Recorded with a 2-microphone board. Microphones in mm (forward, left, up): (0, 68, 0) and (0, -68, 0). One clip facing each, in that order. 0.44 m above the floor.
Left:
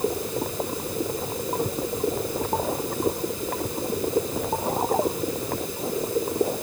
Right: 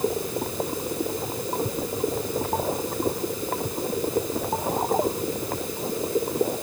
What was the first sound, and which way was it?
Only background noise.